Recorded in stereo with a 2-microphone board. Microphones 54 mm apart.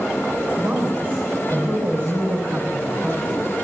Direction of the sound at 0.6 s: 40° right (ahead or behind).